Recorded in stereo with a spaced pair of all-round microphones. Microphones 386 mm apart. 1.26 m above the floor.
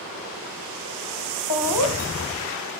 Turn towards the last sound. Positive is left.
turn(degrees=65)  # may be behind; listen again after turning